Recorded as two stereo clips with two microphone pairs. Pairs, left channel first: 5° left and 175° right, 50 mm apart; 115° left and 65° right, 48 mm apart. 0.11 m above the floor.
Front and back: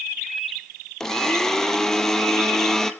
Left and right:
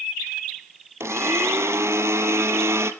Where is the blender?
80° right, 1.0 m.